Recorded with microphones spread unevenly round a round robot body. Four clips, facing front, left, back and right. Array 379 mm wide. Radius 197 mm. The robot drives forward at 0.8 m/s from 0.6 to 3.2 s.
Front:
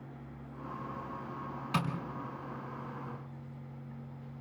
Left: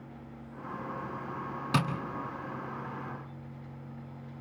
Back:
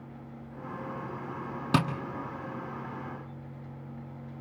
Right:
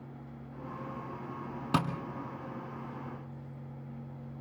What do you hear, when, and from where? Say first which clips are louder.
1.7 s tapping: even, back 7 dB; 170° right, 1.8 m